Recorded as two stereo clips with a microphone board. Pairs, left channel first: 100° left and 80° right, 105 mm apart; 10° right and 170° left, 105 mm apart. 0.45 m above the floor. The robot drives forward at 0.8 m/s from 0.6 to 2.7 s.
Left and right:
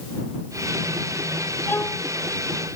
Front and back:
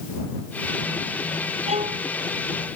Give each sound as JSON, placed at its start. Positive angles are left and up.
{"t": 1.7, "sound": "a violin", "azimuth_deg": 170}